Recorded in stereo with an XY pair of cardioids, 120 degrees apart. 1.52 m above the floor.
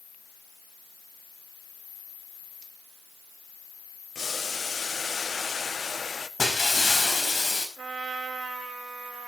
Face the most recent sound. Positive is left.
turn(degrees=-15)